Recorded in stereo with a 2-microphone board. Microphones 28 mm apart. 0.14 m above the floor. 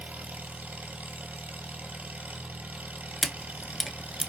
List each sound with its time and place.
0.0 s an engine running: 70° right (ahead or behind), 1.2 m
3.2 s a camera shutter: centre (ahead or behind), 0.5 m